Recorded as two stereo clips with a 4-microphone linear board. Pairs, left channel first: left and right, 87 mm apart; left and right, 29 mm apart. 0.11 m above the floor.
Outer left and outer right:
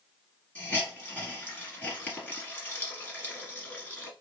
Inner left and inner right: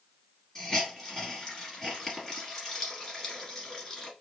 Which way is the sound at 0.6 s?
15° left (ahead or behind).